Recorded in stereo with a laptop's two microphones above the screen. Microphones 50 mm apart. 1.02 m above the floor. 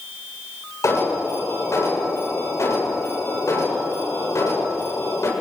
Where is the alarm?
80° left, 7 m.